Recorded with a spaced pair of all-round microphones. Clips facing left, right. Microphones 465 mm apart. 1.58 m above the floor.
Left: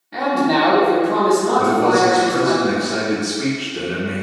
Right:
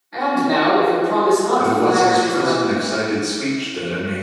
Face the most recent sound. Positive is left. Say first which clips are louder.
# left 1 dB
turn(degrees=35)  # may be behind; listen again after turning